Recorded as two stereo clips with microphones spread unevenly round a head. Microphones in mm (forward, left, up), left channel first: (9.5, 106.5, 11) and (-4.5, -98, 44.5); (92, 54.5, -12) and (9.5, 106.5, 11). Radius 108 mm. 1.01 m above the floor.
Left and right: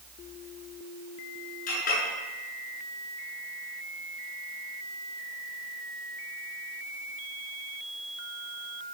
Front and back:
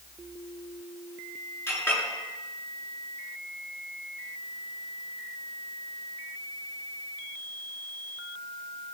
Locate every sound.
1.7 s a clink: 35° left, 7 m